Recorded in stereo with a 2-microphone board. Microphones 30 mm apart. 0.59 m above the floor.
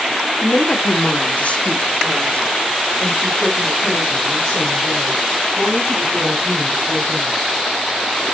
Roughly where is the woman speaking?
Left.